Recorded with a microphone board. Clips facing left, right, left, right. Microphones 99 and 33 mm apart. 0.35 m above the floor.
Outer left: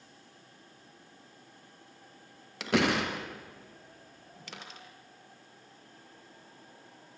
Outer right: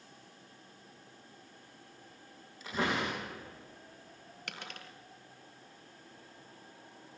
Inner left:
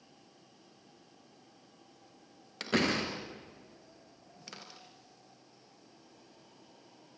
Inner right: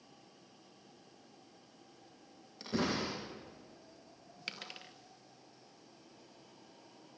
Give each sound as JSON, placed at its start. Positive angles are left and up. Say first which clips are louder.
{"t": 2.6, "sound": "a door slam", "louder": "outer left 6 dB, inner left 5 dB", "side_deg": 80, "distance_m": 5.0}
{"t": 4.5, "sound": "a dropped coin", "louder": "outer right 1 dB, inner right 5 dB", "side_deg": -65, "distance_m": 3.0}